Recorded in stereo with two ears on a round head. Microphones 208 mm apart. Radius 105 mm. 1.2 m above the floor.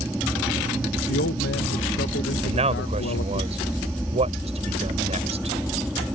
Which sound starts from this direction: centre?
An aircraft, at 0.0 s.